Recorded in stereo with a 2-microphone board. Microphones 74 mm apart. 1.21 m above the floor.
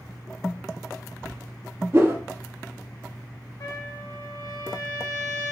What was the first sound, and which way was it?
A whoosh, 35° right (ahead or behind).